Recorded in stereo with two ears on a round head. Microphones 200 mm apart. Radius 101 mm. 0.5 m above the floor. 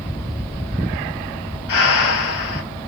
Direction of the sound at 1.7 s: 70° left (ahead or behind).